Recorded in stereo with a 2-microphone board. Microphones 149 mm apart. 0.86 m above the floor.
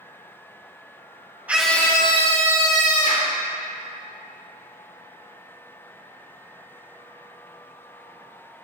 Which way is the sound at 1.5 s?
10° right (ahead or behind).